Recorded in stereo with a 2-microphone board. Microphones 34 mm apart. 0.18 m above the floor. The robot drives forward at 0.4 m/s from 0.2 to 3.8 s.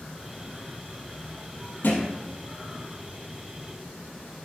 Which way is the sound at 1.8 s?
80° left.